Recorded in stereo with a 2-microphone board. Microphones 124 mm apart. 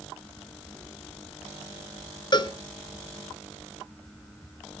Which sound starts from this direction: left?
A cowbell, at 2.3 s.